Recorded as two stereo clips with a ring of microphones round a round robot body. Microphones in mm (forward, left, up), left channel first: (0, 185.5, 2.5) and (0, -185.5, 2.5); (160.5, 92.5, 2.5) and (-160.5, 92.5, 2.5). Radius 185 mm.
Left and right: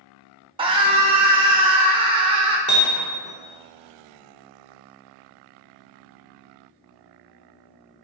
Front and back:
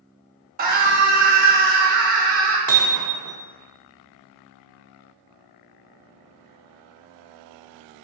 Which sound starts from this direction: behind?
Hammering, at 2.7 s.